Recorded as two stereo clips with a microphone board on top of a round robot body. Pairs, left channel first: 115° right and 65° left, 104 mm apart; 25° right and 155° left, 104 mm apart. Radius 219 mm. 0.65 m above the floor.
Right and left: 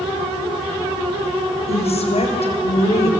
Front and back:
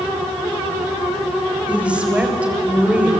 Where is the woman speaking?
125° right, 4 m.